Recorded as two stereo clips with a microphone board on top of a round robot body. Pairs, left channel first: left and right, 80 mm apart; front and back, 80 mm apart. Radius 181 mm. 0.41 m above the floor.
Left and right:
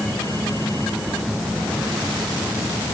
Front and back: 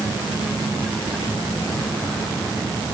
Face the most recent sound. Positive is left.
No sound to turn to.